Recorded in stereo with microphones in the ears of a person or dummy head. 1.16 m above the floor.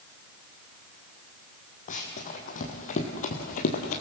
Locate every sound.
1.9 s running footsteps: 40° left (ahead or behind), 3 m